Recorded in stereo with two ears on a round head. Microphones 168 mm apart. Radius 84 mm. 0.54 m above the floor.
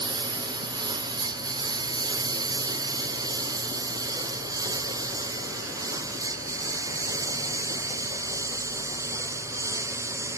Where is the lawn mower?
25° right (ahead or behind); by 10.4 s 15° right (ahead or behind).